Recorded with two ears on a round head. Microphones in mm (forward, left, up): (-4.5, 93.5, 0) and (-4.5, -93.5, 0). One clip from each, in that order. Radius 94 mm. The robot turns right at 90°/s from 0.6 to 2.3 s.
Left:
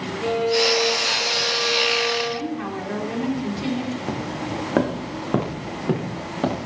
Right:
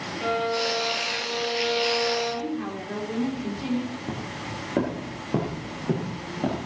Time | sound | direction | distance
0.2 | a violin | 70° right | 8.5 m
2.3 | a woman speaking | 35° left (ahead or behind) | 4 m
4.1 | footsteps | 50° left (ahead or behind) | 3 m